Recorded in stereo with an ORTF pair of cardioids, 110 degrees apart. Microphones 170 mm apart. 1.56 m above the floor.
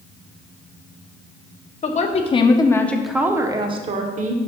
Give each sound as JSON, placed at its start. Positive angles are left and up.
{"t": 1.8, "sound": "a woman speaking", "azimuth_deg": 45, "distance_m": 1.1}